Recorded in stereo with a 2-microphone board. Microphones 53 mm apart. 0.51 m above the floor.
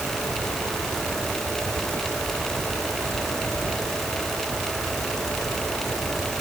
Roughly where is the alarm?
I don't hear an alarm.